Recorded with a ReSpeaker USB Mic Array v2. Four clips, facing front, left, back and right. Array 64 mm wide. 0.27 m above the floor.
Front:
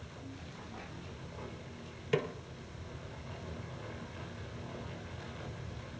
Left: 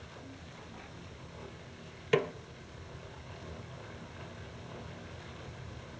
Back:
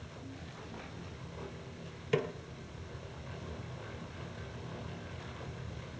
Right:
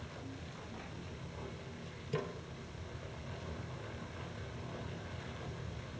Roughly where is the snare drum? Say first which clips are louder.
Left 10 dB, even; left.